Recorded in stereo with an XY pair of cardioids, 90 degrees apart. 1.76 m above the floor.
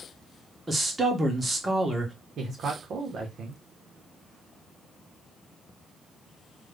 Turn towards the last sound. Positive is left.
turn(degrees=-65)